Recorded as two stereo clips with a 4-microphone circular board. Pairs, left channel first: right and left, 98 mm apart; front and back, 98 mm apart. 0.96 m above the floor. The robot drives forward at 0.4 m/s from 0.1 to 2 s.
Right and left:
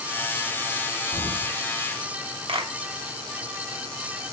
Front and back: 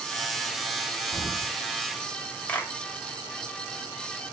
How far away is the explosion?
About 1.5 m.